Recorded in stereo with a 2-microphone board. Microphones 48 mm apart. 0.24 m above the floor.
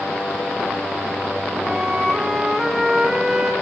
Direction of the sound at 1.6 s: 10° right (ahead or behind).